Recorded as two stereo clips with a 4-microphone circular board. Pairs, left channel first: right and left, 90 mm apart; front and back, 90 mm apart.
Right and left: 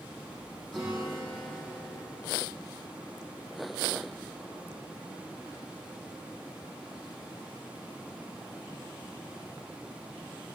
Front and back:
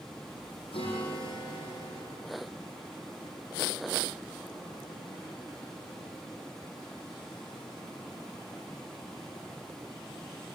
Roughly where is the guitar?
Ahead.